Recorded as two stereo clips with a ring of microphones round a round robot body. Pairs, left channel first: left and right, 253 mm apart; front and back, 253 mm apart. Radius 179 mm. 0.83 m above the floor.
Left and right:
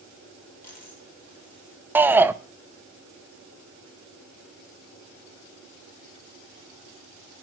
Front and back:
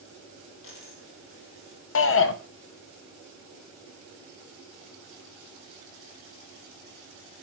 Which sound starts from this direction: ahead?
A shout, at 1.9 s.